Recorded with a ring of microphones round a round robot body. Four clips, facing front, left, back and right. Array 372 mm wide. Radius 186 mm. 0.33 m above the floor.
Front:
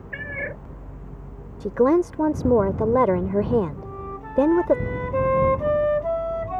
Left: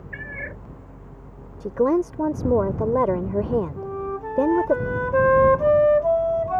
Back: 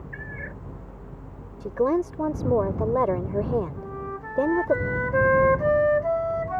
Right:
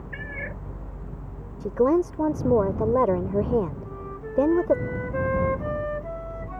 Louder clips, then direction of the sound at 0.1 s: Left 1 dB, front 8 dB; 5° right.